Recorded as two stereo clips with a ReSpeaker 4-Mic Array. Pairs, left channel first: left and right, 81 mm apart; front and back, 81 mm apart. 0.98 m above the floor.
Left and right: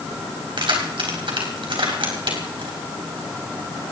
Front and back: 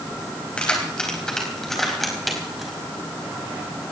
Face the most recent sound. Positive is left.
turn(degrees=-95)